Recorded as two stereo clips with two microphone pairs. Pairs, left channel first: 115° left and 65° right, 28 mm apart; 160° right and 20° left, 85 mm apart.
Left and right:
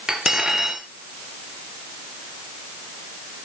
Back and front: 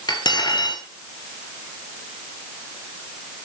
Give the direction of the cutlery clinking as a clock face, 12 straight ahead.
4 o'clock.